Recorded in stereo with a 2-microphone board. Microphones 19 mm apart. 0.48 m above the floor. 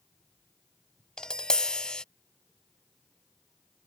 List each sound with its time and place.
1.2 s tapping: 55° left (ahead or behind)